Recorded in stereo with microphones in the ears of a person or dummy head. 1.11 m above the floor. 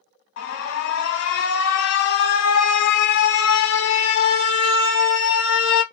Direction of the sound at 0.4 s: 75° left (ahead or behind).